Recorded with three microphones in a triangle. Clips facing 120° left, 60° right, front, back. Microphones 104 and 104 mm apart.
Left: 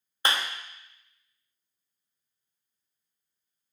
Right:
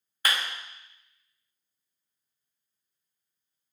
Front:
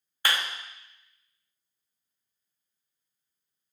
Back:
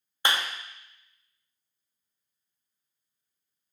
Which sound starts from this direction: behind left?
A clap, at 0.2 s.